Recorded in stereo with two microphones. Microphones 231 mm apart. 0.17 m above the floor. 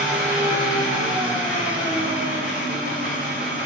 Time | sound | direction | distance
0.0 | an engine running | 5° right (ahead or behind) | 1.0 m